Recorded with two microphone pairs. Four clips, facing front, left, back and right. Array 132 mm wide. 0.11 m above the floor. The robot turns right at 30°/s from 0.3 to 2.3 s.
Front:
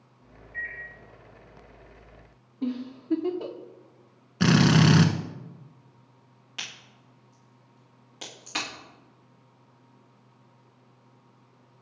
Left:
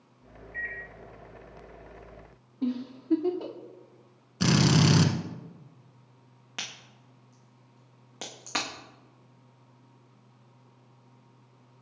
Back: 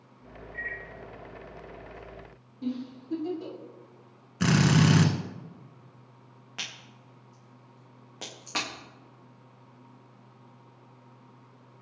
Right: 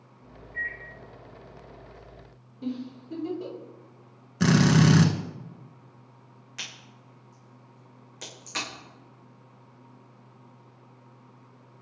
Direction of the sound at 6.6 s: 110° left.